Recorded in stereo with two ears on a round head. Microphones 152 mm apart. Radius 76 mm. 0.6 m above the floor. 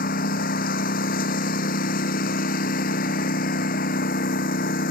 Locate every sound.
0.0 s a lawn mower: 55° left (ahead or behind)